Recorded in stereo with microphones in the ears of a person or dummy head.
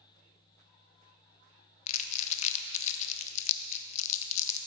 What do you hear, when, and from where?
1.9 s crumpling: 40° left (ahead or behind), 0.7 m